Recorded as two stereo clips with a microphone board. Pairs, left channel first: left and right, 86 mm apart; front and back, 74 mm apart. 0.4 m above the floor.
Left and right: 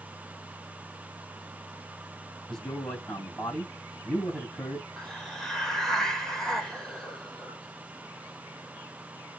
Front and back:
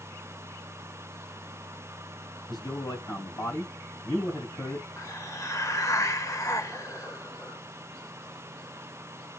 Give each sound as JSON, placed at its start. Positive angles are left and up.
{"t": 2.5, "sound": "a man speaking", "azimuth_deg": 10, "distance_m": 3.0}
{"t": 5.0, "sound": "a hiss", "azimuth_deg": 10, "distance_m": 1.1}